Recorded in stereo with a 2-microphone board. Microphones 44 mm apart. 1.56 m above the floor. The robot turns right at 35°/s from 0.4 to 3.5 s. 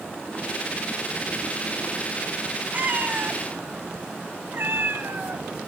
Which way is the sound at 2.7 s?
35° right (ahead or behind).